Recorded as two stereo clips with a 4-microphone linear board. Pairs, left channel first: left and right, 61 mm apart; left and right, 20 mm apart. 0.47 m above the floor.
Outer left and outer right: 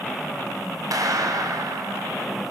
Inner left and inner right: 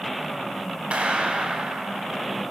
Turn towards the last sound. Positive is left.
turn(degrees=-65)  # may be behind; listen again after turning